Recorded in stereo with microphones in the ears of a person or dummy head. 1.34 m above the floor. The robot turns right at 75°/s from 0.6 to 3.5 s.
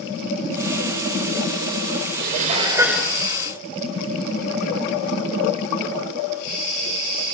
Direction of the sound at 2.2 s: 60° right.